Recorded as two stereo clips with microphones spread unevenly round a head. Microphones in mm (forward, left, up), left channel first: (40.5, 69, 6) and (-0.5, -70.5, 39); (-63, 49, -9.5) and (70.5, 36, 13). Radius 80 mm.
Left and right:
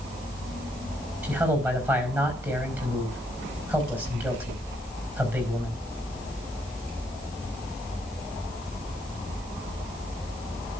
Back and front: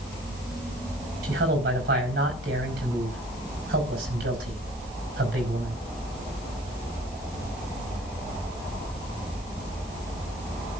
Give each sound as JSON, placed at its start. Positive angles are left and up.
{"t": 1.2, "sound": "a man speaking", "azimuth_deg": -30, "distance_m": 5.0}